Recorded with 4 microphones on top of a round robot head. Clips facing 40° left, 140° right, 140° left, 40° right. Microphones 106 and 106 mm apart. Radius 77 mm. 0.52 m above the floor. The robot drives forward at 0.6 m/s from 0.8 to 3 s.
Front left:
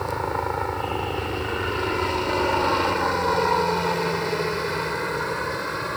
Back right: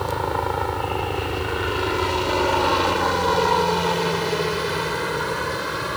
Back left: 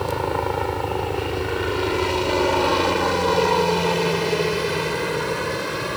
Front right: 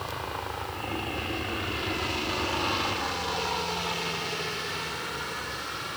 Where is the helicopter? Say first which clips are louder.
Back right 2 dB, back left 12 dB; 140° left; by 6.0 s 135° left.